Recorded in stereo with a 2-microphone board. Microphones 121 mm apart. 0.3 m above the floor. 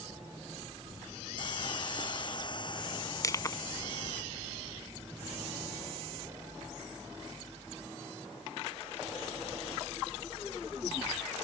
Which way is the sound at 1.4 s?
40° left (ahead or behind).